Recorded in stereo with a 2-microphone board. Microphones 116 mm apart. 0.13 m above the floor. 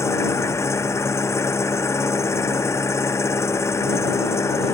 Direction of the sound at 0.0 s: 25° left (ahead or behind).